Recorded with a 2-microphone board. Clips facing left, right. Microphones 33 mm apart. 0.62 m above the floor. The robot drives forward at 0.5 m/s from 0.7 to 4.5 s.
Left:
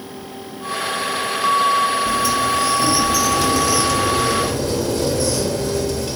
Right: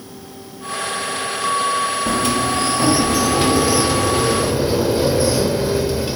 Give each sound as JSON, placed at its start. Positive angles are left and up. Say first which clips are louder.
{"t": 2.1, "sound": "a sliding door", "louder": "left 1 dB", "side_deg": -50, "distance_m": 0.8}